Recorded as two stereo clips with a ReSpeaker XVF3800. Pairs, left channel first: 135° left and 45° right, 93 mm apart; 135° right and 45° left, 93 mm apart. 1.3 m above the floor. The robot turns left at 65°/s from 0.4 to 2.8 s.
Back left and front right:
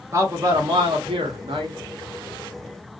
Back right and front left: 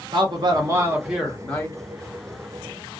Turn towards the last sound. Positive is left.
turn(degrees=-145)